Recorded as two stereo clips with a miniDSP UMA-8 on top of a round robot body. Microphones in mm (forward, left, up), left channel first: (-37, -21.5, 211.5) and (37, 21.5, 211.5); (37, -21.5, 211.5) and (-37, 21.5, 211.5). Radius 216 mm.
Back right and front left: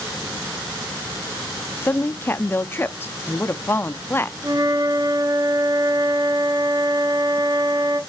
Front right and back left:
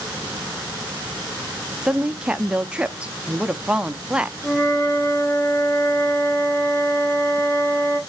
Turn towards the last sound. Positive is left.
turn(degrees=20)